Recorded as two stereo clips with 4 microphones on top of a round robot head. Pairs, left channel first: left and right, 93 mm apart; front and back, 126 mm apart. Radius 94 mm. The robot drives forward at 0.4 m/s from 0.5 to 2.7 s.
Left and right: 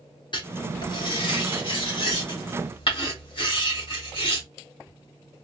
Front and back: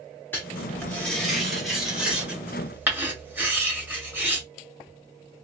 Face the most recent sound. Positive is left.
turn(degrees=110)